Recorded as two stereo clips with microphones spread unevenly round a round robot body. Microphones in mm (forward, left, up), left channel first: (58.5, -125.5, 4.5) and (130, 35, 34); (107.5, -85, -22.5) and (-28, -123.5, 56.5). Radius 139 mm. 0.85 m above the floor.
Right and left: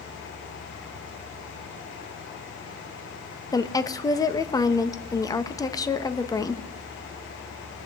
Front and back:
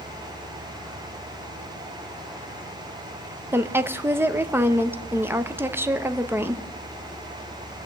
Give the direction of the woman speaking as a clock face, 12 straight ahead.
2 o'clock.